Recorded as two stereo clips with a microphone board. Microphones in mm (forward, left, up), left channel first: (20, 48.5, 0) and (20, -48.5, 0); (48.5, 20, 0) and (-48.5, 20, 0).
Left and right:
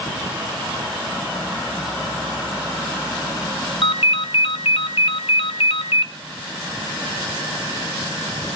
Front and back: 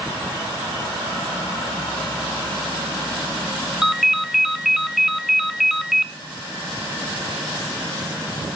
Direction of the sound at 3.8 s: 95° left.